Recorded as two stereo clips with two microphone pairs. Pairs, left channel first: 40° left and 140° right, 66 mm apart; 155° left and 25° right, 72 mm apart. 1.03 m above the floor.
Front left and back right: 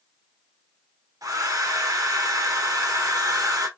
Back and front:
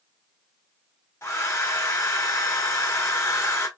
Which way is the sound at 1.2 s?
155° right.